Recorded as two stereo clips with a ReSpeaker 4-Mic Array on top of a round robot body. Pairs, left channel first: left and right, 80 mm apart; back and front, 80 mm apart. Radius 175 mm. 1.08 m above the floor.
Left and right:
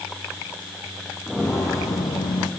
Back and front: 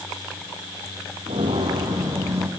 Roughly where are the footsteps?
Ahead.